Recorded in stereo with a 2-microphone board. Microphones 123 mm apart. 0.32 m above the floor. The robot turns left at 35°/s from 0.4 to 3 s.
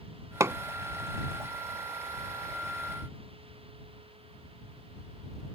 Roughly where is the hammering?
Right.